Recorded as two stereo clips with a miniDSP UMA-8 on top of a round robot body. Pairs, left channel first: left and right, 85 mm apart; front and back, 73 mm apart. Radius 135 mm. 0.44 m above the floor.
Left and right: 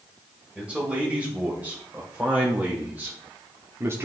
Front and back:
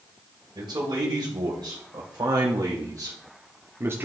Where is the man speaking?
170° right, 3 m; by 4.1 s 135° right, 1.1 m.